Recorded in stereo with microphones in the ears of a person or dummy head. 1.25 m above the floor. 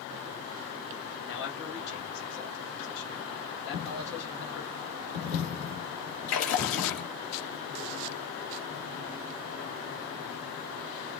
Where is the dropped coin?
35° left (ahead or behind), 1.6 m.